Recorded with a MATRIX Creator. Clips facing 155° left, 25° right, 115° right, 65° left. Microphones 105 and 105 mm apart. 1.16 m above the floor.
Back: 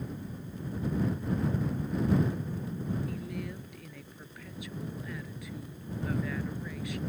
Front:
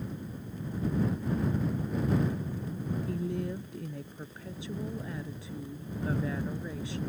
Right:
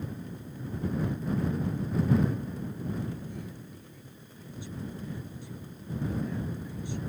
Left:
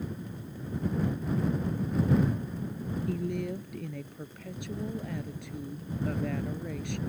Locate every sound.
3.1 s a woman speaking: 40° left